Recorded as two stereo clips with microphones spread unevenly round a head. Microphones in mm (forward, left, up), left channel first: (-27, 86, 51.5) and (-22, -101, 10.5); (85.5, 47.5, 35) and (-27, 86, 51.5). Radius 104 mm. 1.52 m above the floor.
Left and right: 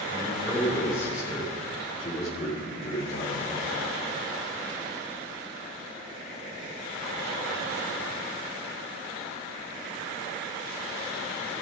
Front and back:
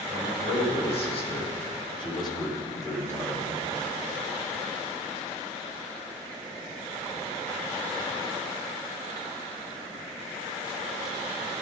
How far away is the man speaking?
About 5.5 m.